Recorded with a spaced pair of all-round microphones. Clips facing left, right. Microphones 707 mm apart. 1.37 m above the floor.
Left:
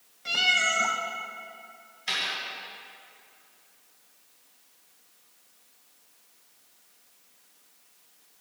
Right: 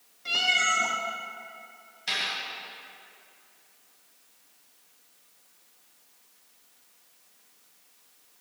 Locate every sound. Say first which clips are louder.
0.2 s a cat meowing: even; 25° left (ahead or behind), 0.9 m
2.1 s a dropped coin: even; 60° right (ahead or behind), 3.5 m